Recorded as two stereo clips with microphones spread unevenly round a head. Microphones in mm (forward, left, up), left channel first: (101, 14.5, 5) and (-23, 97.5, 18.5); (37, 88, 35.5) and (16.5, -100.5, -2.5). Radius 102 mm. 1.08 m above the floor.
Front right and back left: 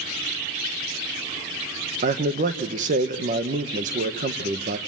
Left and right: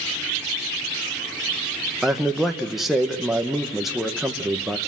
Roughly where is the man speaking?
Behind.